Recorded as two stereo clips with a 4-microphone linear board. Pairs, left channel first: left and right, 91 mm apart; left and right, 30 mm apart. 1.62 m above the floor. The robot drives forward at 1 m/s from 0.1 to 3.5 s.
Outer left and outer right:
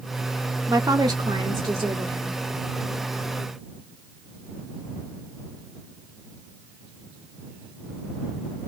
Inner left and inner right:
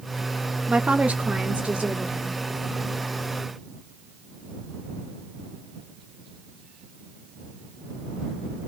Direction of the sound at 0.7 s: 35° right (ahead or behind).